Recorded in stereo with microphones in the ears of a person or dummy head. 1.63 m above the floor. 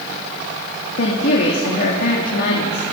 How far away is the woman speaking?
About 3 m.